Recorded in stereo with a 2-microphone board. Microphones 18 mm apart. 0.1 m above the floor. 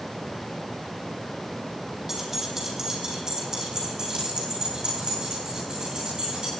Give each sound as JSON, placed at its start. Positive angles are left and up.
{"t": 2.1, "sound": "keys jangling", "side_deg": -15, "distance_m": 3.0}